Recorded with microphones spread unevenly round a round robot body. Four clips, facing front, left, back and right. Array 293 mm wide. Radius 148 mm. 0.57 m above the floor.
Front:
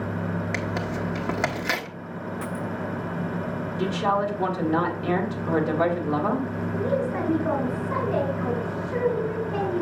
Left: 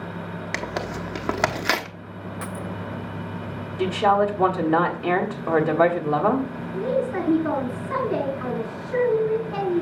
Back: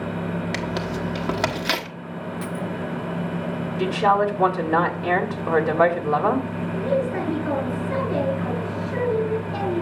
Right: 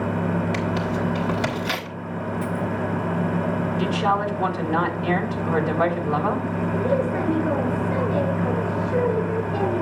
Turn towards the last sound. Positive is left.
turn(degrees=90)